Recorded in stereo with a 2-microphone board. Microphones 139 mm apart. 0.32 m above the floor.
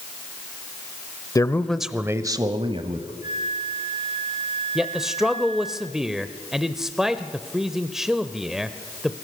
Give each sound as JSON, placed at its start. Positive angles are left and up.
{"t": 1.4, "sound": "a man speaking", "side_deg": 25, "distance_m": 1.0}
{"t": 3.2, "sound": "a flute", "side_deg": 60, "distance_m": 2.0}
{"t": 4.8, "sound": "a man speaking", "side_deg": -5, "distance_m": 1.0}